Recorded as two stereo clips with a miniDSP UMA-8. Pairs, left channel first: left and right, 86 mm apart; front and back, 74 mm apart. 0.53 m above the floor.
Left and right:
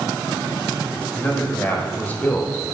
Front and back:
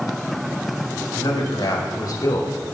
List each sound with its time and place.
1.1 s a man speaking: 20° left, 3 m